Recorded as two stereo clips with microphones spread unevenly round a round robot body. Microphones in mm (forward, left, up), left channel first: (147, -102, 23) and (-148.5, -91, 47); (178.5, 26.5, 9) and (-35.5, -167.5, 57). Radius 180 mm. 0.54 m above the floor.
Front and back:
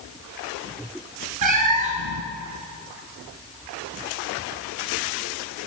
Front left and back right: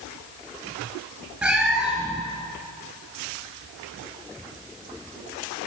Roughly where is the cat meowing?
Behind left.